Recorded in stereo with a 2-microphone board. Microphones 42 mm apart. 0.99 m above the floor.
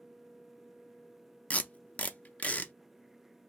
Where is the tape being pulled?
35° left (ahead or behind), 0.5 m.